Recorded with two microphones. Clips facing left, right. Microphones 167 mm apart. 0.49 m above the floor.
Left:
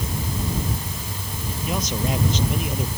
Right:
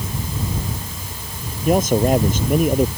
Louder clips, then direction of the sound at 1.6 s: Right 11 dB; 50° right (ahead or behind).